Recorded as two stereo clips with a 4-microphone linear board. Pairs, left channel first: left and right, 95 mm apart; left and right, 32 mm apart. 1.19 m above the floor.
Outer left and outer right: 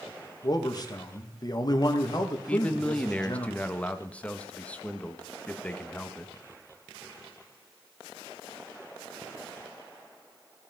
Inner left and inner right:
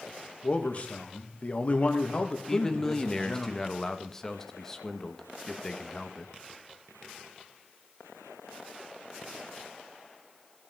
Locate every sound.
0.4 s a man speaking: 40° left (ahead or behind), 1.7 m
2.5 s a man speaking: 10° left (ahead or behind), 1.1 m